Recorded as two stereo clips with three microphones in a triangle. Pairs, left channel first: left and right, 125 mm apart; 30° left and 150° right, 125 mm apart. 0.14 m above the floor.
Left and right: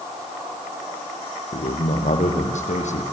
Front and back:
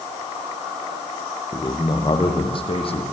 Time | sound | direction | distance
1.5 | a man speaking | 90° left | 4 m